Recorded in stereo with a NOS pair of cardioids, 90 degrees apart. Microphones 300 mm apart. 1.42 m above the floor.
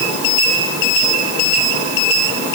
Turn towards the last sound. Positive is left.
No sound to turn to.